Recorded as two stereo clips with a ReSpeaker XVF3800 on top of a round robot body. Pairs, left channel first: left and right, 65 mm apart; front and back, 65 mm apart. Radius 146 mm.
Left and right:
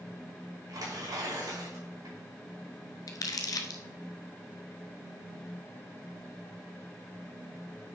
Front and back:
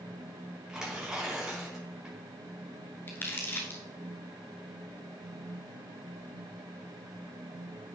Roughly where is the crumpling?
Ahead left.